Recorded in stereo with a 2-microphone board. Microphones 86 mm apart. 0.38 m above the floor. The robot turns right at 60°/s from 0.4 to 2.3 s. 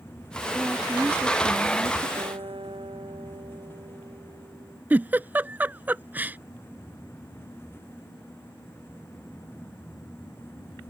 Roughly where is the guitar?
Right.